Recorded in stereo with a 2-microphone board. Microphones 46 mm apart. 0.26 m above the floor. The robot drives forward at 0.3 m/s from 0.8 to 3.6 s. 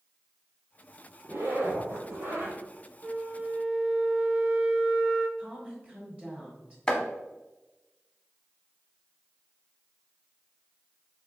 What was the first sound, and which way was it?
A zipper, 60° right (ahead or behind).